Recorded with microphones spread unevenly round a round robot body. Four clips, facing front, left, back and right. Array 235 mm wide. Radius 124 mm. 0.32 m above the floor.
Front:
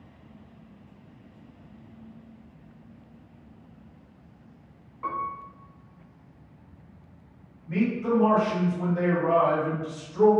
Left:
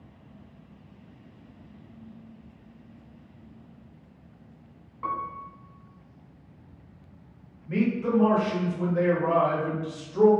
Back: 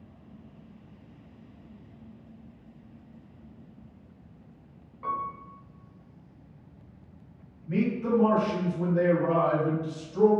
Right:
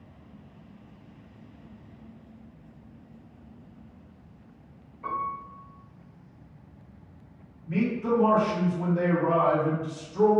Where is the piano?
70° left, 0.7 m.